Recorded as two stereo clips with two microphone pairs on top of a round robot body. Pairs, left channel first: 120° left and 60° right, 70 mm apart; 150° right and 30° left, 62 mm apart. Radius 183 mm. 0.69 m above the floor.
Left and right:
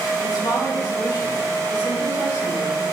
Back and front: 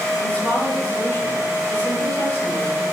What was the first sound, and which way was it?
A woman speaking, 140° left.